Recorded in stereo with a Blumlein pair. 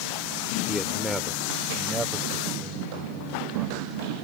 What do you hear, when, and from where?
0.7 s a man speaking: 5° left; by 4.2 s 25° right